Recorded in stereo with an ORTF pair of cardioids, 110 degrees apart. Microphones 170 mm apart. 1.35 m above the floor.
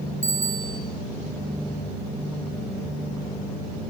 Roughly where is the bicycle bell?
Ahead.